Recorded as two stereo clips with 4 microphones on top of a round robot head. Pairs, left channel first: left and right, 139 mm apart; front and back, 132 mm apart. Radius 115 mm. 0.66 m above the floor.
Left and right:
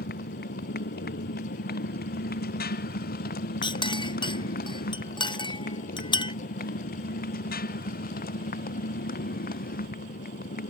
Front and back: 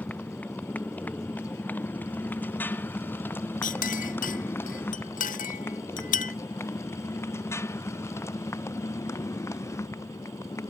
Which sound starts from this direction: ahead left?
A clink, at 3.6 s.